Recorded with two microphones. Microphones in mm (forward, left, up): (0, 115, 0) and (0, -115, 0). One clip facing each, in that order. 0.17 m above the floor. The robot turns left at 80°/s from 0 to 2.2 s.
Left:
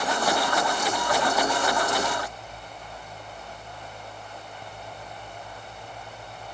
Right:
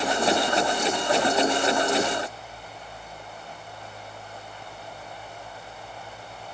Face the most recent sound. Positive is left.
No sound to turn to.